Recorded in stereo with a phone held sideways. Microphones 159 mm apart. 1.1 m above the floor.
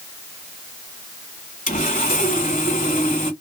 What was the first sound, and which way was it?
Sawing, 55° left (ahead or behind).